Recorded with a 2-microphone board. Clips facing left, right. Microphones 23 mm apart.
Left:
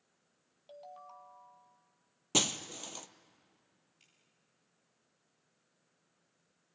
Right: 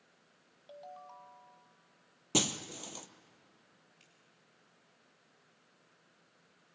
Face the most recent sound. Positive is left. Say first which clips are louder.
# right 1 dB
turn(degrees=-15)  # may be behind; listen again after turning